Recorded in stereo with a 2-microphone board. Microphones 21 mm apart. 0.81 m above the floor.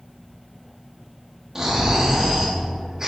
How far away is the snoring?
About 1.5 m.